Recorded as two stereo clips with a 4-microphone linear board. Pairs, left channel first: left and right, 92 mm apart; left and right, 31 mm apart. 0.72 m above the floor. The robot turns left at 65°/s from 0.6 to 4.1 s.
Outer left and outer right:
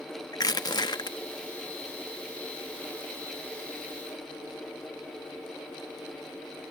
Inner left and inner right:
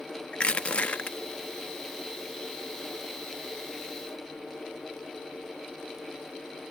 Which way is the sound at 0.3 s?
115° left.